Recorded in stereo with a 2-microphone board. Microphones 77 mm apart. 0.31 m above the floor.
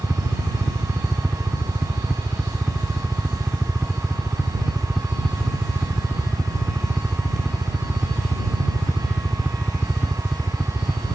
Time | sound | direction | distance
0.0 | a helicopter | centre (ahead or behind) | ?